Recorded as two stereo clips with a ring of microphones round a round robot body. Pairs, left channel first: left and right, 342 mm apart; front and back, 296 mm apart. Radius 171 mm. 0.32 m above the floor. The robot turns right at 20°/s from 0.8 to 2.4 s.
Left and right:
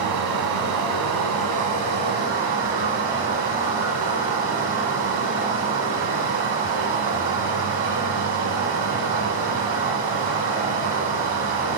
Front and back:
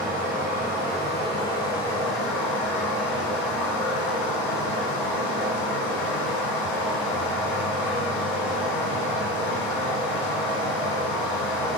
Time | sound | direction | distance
0.0 | running water | 65° right | 1.0 m